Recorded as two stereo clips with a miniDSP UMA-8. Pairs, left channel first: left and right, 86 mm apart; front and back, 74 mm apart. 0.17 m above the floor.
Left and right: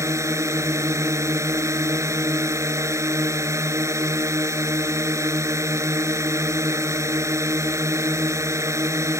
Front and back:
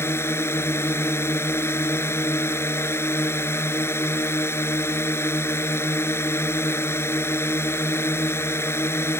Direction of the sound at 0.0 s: 45° right.